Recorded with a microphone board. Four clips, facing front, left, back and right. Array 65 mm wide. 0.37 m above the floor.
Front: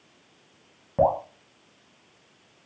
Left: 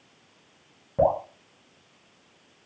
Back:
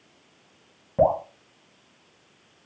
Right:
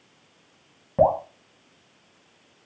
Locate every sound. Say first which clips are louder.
1.0 s dripping: right 3 dB, back 1 dB; 60° right, 1.1 m